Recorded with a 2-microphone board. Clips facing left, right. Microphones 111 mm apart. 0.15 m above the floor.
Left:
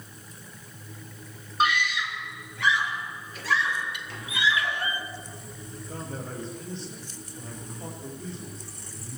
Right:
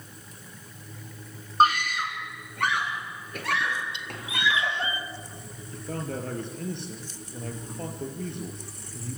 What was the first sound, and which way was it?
A scream, 40° right (ahead or behind).